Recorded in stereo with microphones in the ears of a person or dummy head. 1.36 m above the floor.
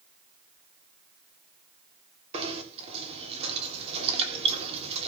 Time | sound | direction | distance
2.3 | knocking | 30° right (ahead or behind) | 3.5 m